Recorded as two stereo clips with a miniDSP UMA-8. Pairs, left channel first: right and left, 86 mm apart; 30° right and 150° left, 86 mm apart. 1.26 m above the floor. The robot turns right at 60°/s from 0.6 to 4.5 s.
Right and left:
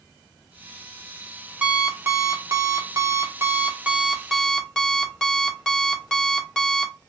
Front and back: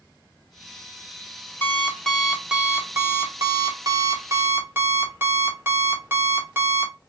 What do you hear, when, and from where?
1.6 s an alarm clock: 25° left, 0.8 m; by 6.9 s 165° right, 0.8 m